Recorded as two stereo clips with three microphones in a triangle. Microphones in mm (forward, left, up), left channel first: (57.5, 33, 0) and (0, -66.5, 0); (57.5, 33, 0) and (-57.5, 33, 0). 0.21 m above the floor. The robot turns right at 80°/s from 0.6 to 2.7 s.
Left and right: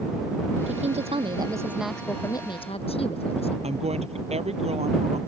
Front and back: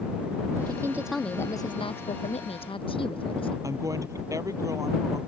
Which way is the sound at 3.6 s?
120° right.